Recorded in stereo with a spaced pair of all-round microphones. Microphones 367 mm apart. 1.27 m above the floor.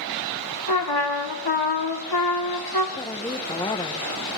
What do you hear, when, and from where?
0.7 s a trumpet: 75° left (ahead or behind), 1.7 m
3.0 s a woman speaking: 10° left (ahead or behind), 1.0 m